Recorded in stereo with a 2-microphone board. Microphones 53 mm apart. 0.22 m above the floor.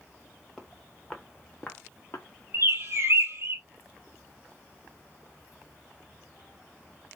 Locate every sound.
0.6 s footsteps: centre (ahead or behind), 1.3 m; by 2.3 s 50° left (ahead or behind), 1.0 m
2.5 s a bird: 50° right (ahead or behind), 1.4 m